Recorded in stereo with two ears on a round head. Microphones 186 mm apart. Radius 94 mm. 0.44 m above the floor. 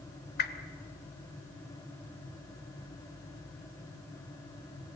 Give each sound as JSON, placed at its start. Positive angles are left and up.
{"t": 0.4, "sound": "a whoosh", "side_deg": 50, "distance_m": 1.5}